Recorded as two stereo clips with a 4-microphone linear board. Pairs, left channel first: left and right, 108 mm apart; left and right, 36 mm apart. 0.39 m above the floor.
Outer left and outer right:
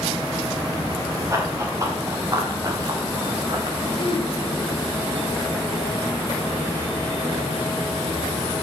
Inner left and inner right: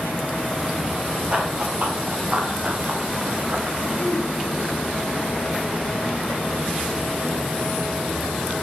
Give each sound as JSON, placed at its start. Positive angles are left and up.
{"t": 1.3, "sound": "running footsteps", "side_deg": -30, "distance_m": 5.0}
{"t": 4.0, "sound": "throat clearing", "side_deg": 60, "distance_m": 2.0}